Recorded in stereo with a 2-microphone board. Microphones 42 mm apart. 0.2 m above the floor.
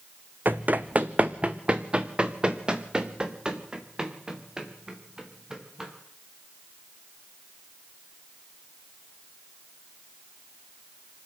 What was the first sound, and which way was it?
Running footsteps, 50° right (ahead or behind).